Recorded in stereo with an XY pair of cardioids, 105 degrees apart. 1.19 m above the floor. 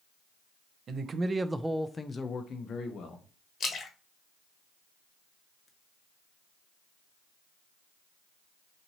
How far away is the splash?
About 1.1 m.